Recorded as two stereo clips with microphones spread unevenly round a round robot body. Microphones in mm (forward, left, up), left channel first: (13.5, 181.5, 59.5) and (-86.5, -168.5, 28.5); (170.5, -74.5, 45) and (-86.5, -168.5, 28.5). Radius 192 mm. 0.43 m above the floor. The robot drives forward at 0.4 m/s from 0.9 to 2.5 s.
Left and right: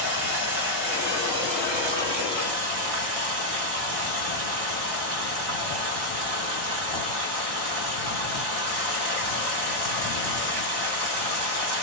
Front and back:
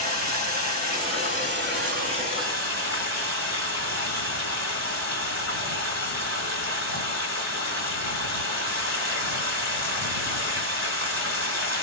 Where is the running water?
105° right, 2.5 m; by 11.8 s 120° right, 2.5 m.